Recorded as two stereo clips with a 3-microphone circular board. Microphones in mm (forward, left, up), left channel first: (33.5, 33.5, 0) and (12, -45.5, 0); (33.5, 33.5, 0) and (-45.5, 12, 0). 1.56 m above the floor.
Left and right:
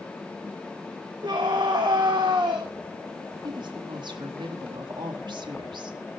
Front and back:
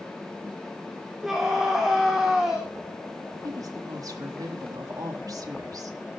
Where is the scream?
80° right, 3.5 m.